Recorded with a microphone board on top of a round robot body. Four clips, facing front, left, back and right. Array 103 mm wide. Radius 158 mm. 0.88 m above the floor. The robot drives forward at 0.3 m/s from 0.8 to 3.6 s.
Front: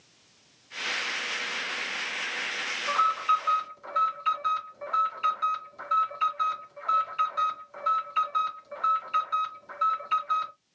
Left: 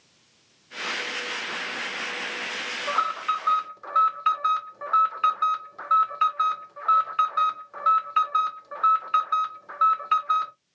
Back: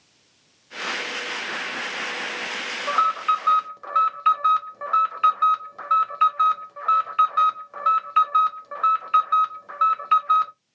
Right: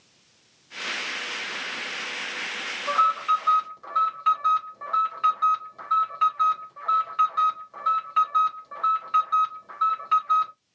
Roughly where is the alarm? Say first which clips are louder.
Right 4 dB, back 4 dB; behind.